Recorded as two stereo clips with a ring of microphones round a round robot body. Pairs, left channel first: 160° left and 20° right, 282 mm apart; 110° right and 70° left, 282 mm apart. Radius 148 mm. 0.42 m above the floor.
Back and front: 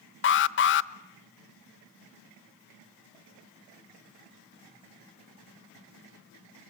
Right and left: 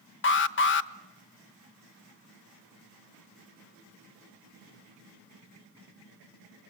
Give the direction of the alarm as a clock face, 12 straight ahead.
5 o'clock.